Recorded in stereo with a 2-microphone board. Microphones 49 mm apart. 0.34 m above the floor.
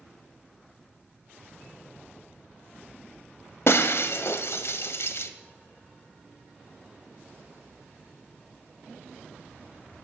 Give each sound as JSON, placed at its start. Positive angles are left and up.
{"t": 3.7, "sound": "breaking glass", "side_deg": 60, "distance_m": 0.6}